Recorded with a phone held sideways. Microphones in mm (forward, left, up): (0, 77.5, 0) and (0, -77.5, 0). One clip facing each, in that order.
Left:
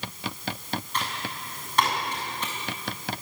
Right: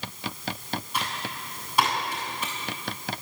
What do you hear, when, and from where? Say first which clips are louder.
0.9 s typing on a keyboard: even; 10° right (ahead or behind), 7 m